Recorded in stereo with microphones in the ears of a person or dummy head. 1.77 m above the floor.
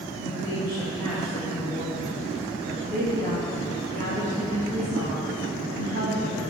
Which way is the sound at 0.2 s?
85° right.